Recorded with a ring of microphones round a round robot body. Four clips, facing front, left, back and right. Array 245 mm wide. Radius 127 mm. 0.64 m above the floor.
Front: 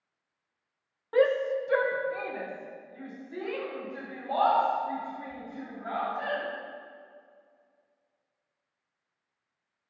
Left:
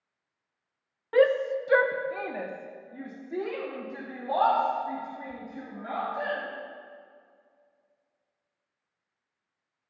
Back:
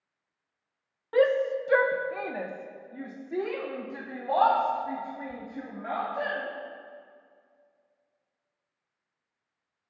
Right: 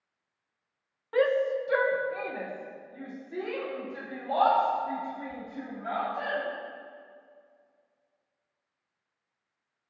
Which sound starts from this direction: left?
A shout, at 1.1 s.